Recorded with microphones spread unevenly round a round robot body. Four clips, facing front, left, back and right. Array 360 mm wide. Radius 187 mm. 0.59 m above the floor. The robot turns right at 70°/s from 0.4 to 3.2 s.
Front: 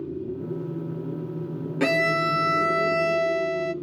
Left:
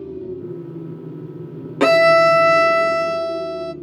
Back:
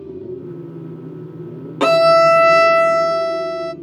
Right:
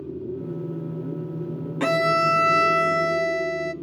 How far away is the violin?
About 0.5 m.